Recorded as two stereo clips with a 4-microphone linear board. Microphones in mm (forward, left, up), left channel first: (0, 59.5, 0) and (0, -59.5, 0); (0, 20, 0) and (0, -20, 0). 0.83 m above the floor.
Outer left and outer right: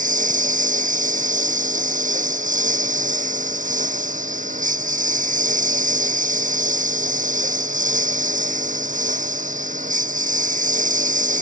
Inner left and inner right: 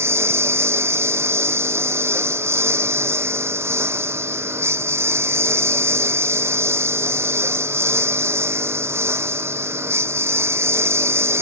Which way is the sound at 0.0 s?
85° right.